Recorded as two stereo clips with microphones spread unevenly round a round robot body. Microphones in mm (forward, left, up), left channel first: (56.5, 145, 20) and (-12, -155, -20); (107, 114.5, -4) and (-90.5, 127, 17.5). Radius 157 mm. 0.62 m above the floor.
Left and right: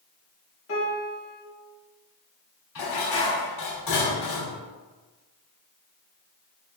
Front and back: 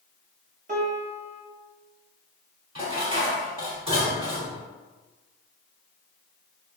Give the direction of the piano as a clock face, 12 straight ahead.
8 o'clock.